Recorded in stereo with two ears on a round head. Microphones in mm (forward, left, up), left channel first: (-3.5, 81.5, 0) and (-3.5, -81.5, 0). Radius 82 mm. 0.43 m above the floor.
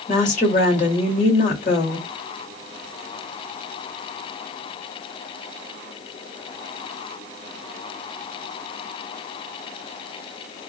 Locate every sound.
0.1 s a woman speaking: 45° left (ahead or behind), 1.5 m